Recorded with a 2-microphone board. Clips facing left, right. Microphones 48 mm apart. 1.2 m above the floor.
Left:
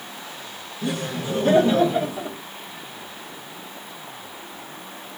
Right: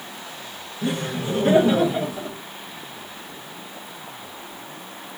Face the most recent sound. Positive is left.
turn(degrees=15)  # may be behind; listen again after turning